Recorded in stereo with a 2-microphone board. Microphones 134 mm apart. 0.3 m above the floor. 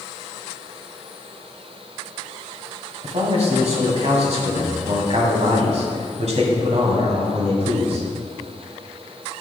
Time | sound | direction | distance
3.0 | a man speaking | 55° right (ahead or behind) | 2.5 m